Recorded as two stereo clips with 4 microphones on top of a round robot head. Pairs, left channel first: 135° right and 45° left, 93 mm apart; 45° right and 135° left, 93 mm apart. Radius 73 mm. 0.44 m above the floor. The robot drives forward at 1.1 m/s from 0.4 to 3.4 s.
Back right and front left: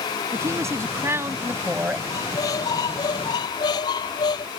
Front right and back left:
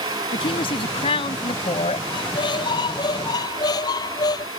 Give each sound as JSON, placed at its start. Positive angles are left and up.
{"t": 0.3, "sound": "a woman speaking", "azimuth_deg": -15}
{"t": 2.1, "sound": "a squeak", "azimuth_deg": -80}